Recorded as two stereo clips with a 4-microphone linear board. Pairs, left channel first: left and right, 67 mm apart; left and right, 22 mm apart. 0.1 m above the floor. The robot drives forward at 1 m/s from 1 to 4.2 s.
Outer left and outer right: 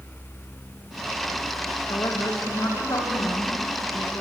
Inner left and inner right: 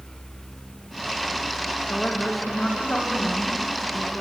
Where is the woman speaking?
70° left (ahead or behind), 6 m; by 4.2 s 55° left (ahead or behind), 7 m.